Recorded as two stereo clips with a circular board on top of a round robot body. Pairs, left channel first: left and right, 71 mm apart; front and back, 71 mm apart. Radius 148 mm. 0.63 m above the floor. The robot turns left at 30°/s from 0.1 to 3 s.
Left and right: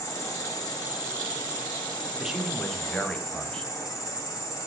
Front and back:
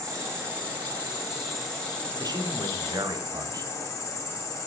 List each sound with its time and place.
0.0 s an insect: 135° left, 7.5 m; by 4.7 s 50° left, 7.5 m
2.2 s a man speaking: 170° right, 3 m; by 3.7 s 165° left, 3 m